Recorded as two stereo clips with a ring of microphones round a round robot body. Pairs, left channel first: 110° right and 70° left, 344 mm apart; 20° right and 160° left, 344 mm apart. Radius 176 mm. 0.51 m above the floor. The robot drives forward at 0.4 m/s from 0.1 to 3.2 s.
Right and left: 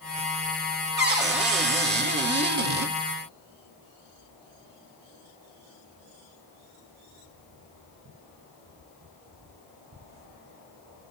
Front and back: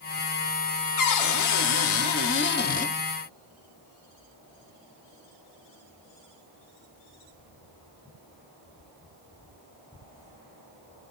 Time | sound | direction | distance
1.0 | a cupboard door | 10° left | 1.2 m